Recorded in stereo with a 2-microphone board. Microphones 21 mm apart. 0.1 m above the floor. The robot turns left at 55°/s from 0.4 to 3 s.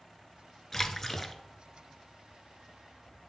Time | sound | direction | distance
0.7 | a splash | 25° left (ahead or behind) | 0.9 m